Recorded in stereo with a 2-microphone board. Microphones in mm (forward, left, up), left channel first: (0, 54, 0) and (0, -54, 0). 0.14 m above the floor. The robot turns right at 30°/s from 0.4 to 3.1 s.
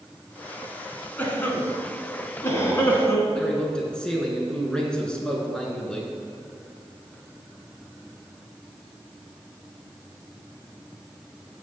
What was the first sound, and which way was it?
A cough, 15° left (ahead or behind).